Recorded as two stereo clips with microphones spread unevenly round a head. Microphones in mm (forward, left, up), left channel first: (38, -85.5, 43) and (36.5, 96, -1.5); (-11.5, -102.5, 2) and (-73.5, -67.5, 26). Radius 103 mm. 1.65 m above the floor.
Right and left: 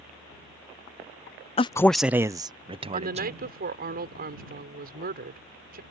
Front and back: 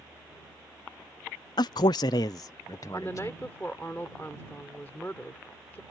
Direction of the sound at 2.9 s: 50° left.